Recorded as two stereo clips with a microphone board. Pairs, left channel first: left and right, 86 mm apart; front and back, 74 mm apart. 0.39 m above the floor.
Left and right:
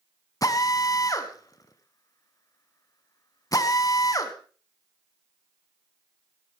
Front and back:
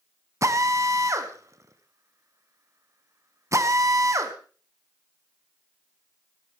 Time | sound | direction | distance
0.4 | a drill | 135° left | 1.6 m